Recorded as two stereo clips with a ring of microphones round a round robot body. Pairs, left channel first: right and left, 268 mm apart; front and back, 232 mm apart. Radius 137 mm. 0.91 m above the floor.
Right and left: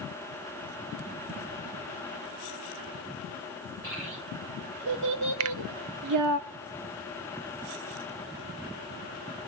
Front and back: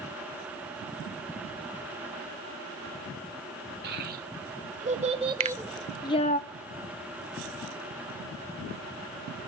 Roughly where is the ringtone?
I don't hear a ringtone.